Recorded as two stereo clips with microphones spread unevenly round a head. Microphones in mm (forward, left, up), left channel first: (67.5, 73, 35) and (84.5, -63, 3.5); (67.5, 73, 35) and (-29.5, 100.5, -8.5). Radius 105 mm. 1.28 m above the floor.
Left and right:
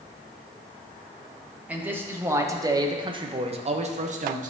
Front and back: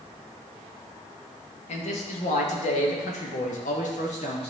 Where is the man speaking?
5° right, 1.5 m; by 4.5 s 80° right, 1.0 m.